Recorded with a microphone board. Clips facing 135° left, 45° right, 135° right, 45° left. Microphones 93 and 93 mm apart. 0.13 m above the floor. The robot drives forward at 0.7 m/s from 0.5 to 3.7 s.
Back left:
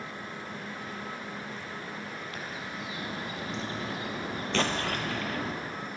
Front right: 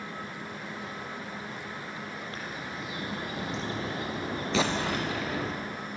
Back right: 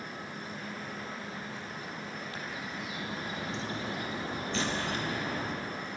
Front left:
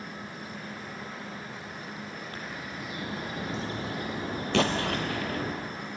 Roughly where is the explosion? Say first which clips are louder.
Front right 2 dB, front left 8 dB; ahead left.